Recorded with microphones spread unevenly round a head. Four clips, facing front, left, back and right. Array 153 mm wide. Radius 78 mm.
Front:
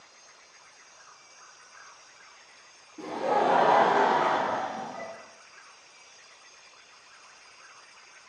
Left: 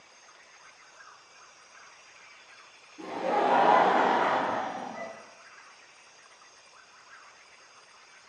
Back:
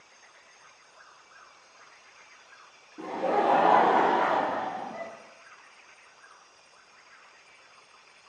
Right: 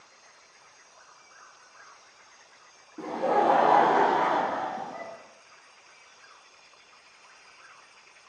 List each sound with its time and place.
3.0 s laughter: 110° right, 0.5 m; by 5.1 s 155° right, 1.3 m